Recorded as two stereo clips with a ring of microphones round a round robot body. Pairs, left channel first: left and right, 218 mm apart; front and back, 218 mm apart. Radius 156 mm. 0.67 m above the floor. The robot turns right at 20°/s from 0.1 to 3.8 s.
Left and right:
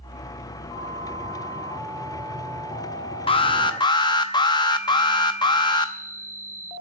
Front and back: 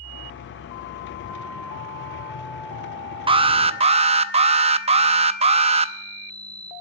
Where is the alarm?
135° left, 0.6 m; by 5.9 s 145° left, 0.6 m.